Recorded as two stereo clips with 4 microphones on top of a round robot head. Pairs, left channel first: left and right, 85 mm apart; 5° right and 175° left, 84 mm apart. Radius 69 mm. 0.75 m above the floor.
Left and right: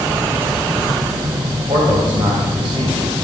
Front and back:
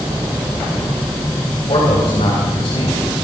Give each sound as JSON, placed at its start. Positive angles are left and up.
{"t": 1.7, "sound": "a man speaking", "azimuth_deg": -40, "distance_m": 3.5}